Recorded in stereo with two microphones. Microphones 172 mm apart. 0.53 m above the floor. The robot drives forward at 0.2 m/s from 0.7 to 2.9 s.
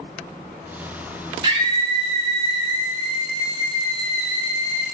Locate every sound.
1.4 s a scream: 30° right (ahead or behind), 0.8 m; by 4.8 s 35° right (ahead or behind), 0.7 m